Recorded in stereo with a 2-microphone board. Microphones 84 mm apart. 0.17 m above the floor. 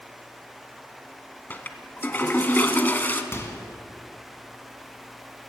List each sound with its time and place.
1.5 s a toilet flushing: 25° left (ahead or behind), 0.7 m
3.3 s a microwave: 30° left (ahead or behind), 1.5 m